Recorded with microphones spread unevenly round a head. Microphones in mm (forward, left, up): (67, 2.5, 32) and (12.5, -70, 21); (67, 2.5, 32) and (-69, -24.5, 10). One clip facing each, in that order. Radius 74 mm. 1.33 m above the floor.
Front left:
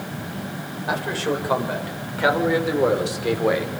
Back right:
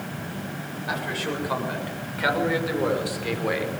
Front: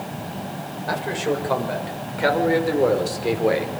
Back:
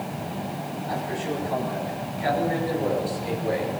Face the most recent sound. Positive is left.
turn(degrees=-10)